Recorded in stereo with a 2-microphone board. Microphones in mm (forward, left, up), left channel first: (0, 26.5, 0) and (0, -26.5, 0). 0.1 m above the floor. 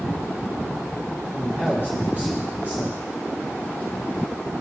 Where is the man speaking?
35° right (ahead or behind), 4 m.